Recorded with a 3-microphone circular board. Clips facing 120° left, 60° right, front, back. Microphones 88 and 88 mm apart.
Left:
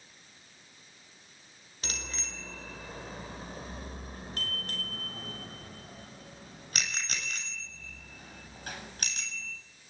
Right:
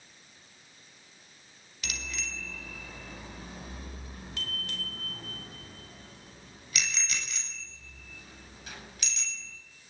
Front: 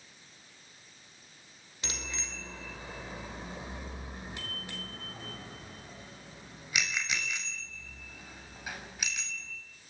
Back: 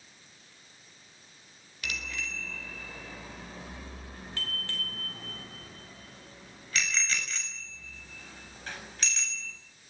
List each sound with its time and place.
1.8 s a bicycle bell: 65° left, 4.5 m; by 9.5 s 80° left, 8 m